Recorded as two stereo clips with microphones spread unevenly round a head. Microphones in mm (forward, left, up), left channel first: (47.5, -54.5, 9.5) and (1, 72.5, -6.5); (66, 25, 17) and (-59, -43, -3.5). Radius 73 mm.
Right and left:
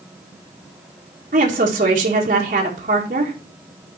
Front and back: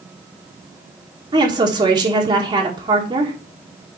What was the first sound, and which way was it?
A woman speaking, 150° left.